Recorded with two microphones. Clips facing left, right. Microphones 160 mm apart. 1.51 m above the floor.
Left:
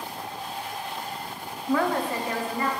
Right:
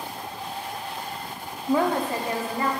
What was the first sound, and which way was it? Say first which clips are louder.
A woman speaking: right 2 dB; 20° right (ahead or behind).